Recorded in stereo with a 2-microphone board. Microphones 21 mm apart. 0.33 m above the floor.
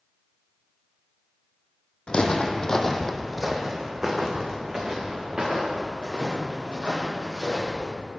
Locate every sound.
2.1 s footsteps: 55° left (ahead or behind), 0.7 m; by 7.9 s 50° right (ahead or behind), 3 m